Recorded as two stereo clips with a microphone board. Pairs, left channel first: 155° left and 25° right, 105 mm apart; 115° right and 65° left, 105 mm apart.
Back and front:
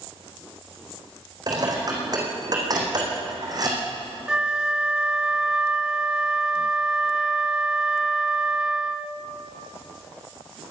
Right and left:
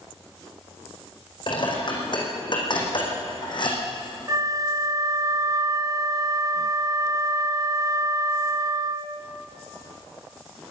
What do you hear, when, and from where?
1.5 s dishes clattering: 70° right, 5 m
4.3 s a flute: 55° left, 0.9 m